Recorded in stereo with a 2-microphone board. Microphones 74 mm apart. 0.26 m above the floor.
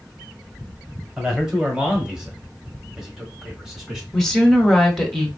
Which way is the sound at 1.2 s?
10° right (ahead or behind).